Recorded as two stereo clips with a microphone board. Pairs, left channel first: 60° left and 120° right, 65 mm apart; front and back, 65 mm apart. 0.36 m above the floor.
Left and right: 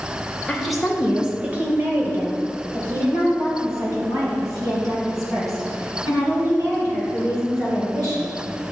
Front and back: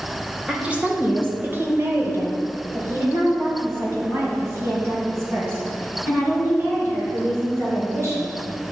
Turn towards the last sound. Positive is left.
turn(degrees=-135)